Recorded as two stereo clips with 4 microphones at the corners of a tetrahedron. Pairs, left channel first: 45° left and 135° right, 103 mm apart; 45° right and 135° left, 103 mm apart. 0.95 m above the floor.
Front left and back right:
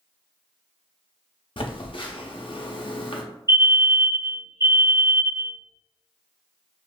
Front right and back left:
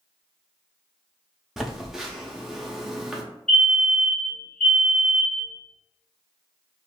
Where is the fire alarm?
125° right, 2.0 m.